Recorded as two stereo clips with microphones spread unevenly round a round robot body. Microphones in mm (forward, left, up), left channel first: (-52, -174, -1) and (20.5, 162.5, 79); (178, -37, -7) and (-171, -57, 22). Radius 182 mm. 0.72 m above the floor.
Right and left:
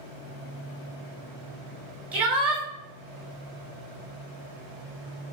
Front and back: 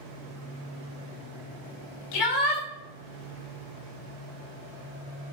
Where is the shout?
15° right, 4.5 m.